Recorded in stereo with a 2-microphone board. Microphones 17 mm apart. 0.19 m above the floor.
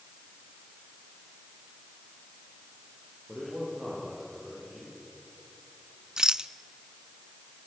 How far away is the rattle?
About 0.5 m.